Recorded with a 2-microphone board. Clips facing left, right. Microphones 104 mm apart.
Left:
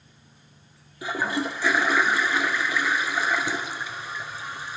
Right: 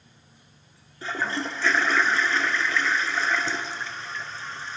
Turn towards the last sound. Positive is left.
turn(degrees=10)  # may be behind; listen again after turning